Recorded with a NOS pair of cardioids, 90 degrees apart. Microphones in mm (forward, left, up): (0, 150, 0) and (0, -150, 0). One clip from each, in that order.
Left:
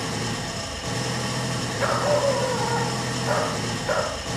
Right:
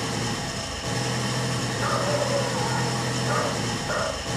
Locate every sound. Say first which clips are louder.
0.0 s an engine running: even; 5° right, 0.8 m
1.8 s a dog barking: left 4 dB; 60° left, 9 m